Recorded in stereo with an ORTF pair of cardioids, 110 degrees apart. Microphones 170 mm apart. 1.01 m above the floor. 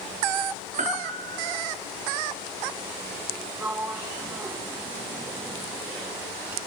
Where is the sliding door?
10° right, 1.5 m.